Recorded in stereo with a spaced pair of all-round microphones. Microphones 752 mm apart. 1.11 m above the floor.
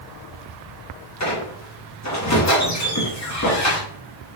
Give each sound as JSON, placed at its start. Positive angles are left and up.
{"t": 1.2, "sound": "a squeak", "side_deg": 25, "distance_m": 0.7}